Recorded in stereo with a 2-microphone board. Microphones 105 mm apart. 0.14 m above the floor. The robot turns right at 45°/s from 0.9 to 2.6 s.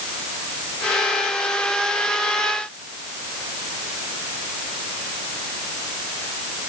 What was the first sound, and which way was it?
Only background noise.